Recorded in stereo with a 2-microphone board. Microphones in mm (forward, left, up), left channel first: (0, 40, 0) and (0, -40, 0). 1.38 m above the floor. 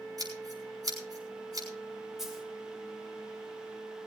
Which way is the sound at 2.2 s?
5° right (ahead or behind).